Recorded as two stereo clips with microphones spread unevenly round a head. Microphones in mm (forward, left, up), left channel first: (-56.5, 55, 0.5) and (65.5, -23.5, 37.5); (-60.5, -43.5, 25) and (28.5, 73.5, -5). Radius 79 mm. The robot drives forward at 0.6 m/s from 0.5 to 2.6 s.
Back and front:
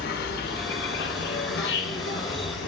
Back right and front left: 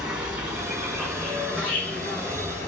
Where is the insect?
140° left, 1.5 m; by 2.7 s 160° left, 2.5 m.